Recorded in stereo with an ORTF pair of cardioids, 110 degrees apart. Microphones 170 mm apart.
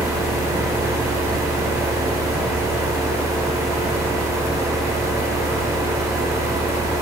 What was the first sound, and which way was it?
A fan, 20° right.